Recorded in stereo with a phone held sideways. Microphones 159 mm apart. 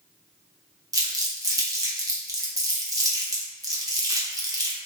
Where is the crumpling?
25° right (ahead or behind), 0.7 m.